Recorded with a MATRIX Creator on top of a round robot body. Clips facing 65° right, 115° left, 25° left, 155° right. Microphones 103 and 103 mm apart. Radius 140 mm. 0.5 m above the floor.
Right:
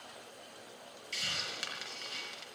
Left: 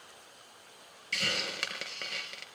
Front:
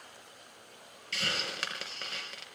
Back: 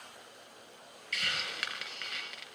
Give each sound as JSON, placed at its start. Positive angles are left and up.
{"t": 1.1, "sound": "a hiss", "azimuth_deg": 85, "distance_m": 4.0}